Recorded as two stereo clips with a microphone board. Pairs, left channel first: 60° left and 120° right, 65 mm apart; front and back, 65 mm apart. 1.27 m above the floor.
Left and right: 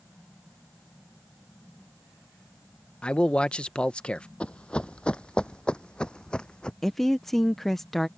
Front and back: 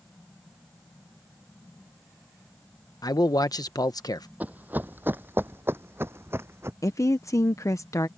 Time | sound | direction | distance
3.0 | a man speaking | 15° right | ?
4.4 | running footsteps | 125° left | ?
6.8 | a woman speaking | 25° right | ?